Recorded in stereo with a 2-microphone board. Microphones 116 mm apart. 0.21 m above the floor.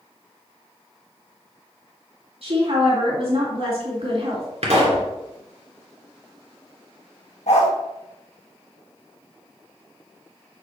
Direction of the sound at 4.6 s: 65° right (ahead or behind).